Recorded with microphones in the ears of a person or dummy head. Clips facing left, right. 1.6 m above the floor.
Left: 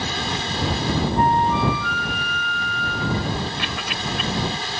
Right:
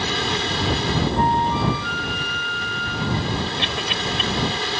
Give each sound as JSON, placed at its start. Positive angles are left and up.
{"t": 0.0, "sound": "a fan", "side_deg": -60}
{"t": 1.2, "sound": "a flute", "side_deg": 60}
{"t": 3.6, "sound": "a cough", "side_deg": -25}